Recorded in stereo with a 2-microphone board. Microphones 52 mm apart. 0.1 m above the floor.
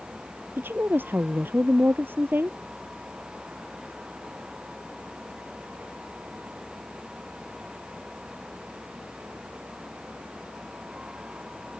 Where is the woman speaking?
45° right (ahead or behind).